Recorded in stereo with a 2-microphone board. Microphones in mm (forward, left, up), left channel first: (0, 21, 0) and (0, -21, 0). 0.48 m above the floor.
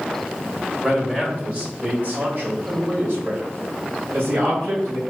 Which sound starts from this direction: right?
A man speaking, at 0.8 s.